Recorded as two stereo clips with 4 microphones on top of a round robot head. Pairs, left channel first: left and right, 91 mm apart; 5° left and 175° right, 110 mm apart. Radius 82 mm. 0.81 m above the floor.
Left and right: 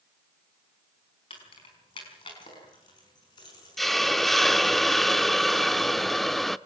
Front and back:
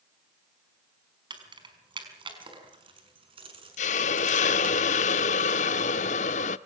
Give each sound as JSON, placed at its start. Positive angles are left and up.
{"t": 1.3, "sound": "keys jangling", "azimuth_deg": 135, "distance_m": 4.5}
{"t": 3.8, "sound": "a hiss", "azimuth_deg": 5, "distance_m": 0.6}